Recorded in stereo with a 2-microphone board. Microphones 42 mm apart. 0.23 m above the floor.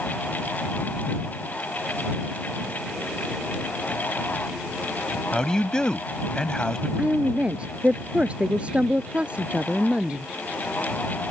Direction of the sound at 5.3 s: 20° left (ahead or behind).